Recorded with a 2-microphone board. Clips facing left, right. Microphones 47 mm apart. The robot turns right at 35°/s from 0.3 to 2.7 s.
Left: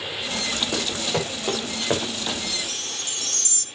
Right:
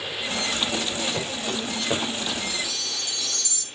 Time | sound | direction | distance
0.7 | running footsteps | 85° left | 6.5 m
2.5 | a chime | 60° left (ahead or behind) | 1.3 m